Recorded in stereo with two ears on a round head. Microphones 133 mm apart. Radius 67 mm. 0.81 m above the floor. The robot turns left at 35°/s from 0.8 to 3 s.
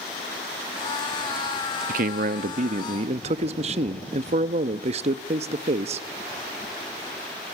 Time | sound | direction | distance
1.9 | a man speaking | 85° right | 0.9 m